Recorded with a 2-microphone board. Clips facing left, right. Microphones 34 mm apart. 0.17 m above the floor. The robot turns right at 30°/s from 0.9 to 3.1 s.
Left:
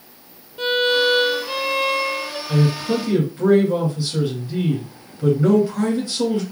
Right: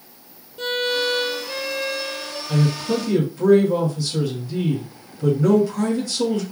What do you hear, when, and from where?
0.6 s a violin: 25° left, 0.8 m; by 2.4 s 70° left, 0.8 m
2.5 s a man speaking: 10° left (ahead or behind), 2.5 m; by 6.4 s 25° left (ahead or behind), 2.5 m